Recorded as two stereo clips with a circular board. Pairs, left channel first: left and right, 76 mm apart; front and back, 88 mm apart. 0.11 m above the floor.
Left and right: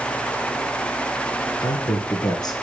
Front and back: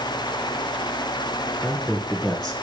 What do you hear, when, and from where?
1.6 s a man speaking: 85° left, 2.5 m